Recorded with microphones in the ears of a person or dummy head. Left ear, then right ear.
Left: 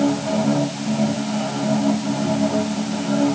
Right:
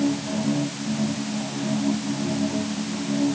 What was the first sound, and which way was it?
A machine running, 75° left (ahead or behind).